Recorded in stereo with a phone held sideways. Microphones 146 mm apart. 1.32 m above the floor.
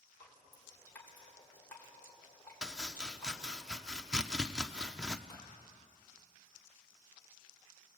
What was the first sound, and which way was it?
Dripping, 15° left (ahead or behind).